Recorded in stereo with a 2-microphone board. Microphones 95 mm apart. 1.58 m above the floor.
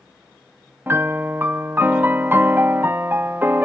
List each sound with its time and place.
0.9 s a piano: 20° right (ahead or behind), 0.6 m